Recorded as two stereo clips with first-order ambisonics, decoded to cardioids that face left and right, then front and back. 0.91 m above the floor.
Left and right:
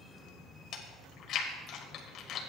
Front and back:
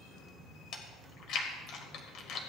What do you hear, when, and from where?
0.7 s chewing: 40° left, 1.9 m